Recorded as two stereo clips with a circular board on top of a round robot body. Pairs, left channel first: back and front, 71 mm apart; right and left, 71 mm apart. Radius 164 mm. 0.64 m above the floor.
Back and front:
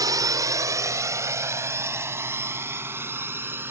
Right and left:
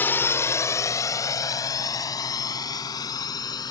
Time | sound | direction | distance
0.0 | a drone | 30° right | ?